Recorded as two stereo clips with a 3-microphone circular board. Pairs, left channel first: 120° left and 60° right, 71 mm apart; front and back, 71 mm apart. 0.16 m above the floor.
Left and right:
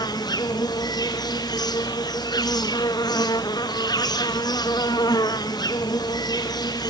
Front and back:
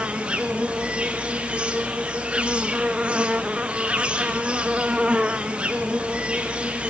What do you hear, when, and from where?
0.0 s an insect: 105° left, 0.9 m